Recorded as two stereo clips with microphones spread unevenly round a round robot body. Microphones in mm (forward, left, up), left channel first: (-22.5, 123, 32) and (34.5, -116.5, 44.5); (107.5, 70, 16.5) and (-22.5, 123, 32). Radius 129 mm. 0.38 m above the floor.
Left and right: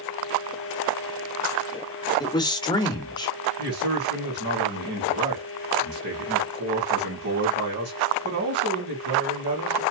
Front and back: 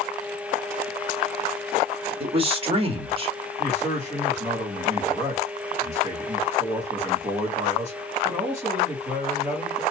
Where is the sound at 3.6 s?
125° right, 2.5 m.